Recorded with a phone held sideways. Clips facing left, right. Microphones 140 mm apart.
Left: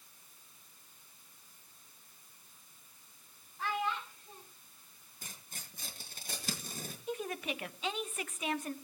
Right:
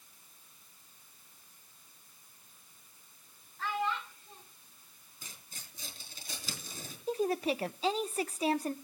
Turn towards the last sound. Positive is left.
turn(degrees=-30)  # may be behind; listen again after turning